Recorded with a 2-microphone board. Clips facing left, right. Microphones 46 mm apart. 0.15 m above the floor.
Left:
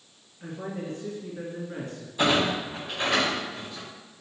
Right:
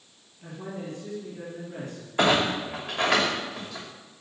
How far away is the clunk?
About 3 m.